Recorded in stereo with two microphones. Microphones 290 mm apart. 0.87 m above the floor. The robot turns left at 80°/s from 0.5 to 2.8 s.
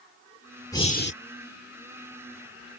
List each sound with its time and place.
0.7 s breathing: 170° left; by 1.1 s 135° left